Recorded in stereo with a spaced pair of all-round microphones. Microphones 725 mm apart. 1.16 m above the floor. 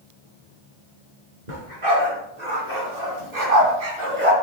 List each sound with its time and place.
1.5 s a dog barking: 80° right, 4 m; by 4.3 s 45° right (ahead or behind), 2.5 m